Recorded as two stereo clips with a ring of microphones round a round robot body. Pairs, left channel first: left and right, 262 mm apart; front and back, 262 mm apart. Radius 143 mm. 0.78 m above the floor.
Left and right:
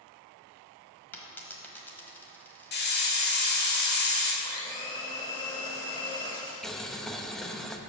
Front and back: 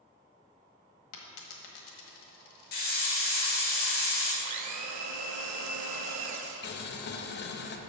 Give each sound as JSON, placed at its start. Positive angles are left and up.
{"t": 1.1, "sound": "a dropped coin", "azimuth_deg": 5, "distance_m": 1.4}
{"t": 2.7, "sound": "a hiss", "azimuth_deg": 50, "distance_m": 1.7}
{"t": 4.4, "sound": "a blender", "azimuth_deg": 165, "distance_m": 0.7}
{"t": 6.6, "sound": "boiling", "azimuth_deg": 0, "distance_m": 0.6}